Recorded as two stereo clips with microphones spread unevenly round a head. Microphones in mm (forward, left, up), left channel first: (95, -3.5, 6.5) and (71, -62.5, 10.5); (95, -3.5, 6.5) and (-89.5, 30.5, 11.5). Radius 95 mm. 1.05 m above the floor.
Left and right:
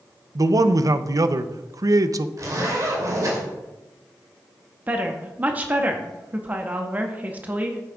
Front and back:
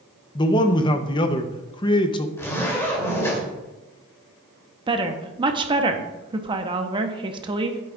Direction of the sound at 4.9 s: 155° right.